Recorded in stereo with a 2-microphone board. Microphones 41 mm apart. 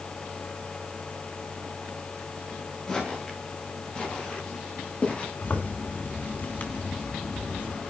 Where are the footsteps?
15° left (ahead or behind), 8.5 m; by 5.3 s 30° left (ahead or behind), 8.5 m.